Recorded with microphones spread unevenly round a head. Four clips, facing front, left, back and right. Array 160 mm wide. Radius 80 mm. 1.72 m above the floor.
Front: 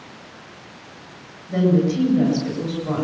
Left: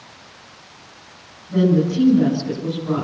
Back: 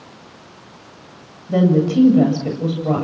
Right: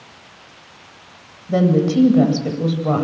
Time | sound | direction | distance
1.5 | a woman speaking | 130° right | 8.5 m